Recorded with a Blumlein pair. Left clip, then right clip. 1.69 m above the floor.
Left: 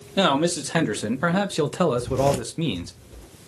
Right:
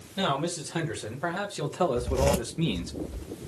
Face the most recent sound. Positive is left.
turn(degrees=-5)